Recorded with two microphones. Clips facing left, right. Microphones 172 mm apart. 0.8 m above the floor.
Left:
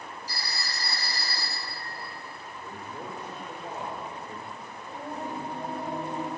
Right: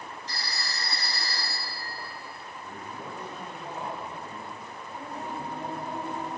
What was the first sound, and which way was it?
A phone ringing, 10° left (ahead or behind).